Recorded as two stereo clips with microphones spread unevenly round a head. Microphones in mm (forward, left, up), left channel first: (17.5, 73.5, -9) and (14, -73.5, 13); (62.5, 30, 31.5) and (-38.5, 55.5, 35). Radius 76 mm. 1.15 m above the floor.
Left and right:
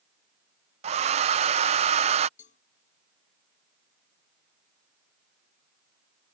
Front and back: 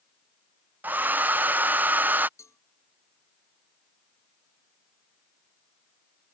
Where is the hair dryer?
125° right.